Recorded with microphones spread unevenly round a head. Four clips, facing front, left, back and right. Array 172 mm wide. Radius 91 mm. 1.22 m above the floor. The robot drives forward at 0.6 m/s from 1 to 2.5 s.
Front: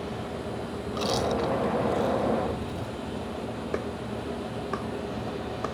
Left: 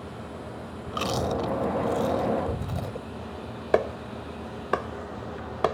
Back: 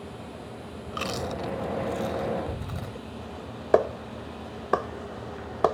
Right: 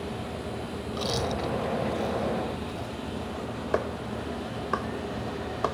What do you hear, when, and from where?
0.9 s chewing: 85° left; by 3.0 s 105° left
3.7 s a clap: 170° left